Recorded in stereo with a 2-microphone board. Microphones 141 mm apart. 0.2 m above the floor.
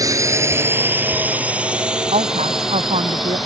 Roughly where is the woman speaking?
Right.